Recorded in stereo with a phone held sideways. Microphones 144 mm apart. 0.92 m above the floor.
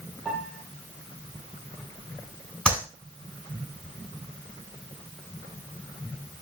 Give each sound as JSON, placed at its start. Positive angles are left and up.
{"t": 0.2, "sound": "a piano", "side_deg": 5, "distance_m": 6.0}
{"t": 2.6, "sound": "a clap", "side_deg": 10, "distance_m": 8.0}